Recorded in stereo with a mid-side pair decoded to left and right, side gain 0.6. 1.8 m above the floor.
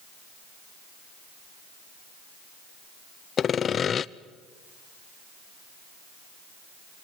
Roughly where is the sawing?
Ahead left.